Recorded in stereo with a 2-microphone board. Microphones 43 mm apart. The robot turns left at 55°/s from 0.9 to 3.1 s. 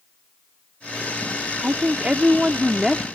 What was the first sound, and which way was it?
A woman speaking, 100° right.